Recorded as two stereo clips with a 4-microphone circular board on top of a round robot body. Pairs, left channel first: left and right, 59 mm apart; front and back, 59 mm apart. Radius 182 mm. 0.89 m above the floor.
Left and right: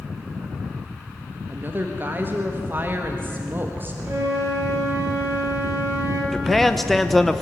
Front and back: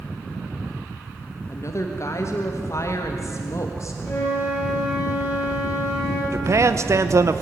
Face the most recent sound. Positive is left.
turn(degrees=175)